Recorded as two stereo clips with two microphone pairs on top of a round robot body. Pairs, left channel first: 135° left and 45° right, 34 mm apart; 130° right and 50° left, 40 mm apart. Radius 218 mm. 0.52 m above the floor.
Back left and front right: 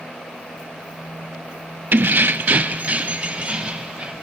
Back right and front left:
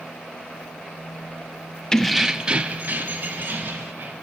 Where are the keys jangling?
65° right, 0.8 m; by 4.1 s 15° left, 2.5 m.